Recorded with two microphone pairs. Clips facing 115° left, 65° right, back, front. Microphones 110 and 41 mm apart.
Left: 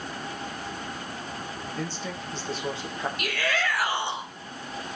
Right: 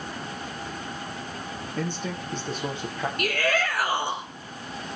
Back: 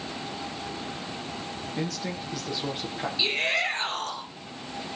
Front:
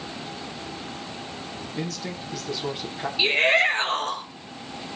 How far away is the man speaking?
About 6.5 m.